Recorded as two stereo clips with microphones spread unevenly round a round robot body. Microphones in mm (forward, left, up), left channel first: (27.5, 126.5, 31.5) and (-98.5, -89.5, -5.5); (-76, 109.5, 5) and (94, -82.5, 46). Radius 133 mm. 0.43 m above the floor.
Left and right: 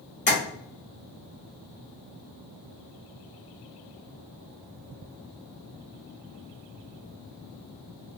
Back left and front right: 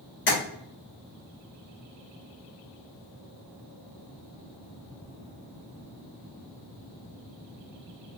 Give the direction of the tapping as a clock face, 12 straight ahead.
8 o'clock.